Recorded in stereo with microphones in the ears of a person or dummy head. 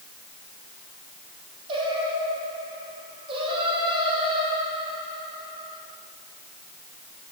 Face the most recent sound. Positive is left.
turn(degrees=-30)  # may be behind; listen again after turning